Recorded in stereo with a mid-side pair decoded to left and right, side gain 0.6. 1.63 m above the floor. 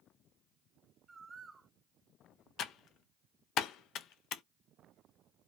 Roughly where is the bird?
Ahead right.